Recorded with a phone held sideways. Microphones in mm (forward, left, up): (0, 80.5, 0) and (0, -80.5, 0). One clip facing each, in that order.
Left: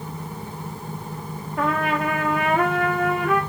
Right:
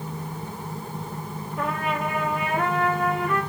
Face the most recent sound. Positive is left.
turn(degrees=75)  # may be behind; listen again after turning